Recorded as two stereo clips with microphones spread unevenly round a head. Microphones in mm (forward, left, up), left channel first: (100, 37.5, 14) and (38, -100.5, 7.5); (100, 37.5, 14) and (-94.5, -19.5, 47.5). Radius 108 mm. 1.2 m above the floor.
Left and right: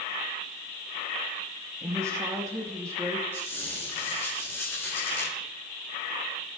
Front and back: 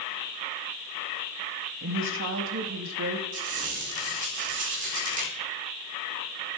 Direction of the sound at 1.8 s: 175° left.